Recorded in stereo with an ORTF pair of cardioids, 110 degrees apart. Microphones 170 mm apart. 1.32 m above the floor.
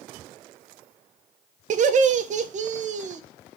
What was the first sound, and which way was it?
Laughter, 45° right.